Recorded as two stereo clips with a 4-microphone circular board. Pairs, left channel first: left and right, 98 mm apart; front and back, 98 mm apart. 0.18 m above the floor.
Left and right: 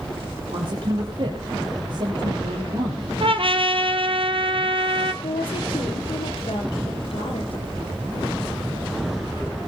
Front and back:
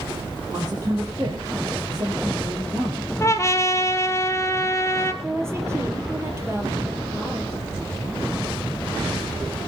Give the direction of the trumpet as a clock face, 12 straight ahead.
2 o'clock.